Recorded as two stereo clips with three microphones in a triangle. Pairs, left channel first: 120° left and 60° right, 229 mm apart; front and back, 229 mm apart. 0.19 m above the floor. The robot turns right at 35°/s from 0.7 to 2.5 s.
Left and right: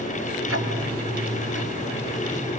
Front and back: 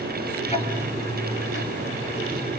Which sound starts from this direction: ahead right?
Ticking, at 0.5 s.